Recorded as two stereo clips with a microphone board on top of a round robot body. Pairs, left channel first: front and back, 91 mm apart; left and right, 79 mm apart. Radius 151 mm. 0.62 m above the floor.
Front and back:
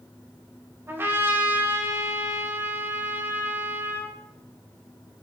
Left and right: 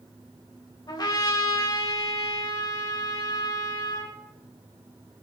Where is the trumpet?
115° left, 4 m.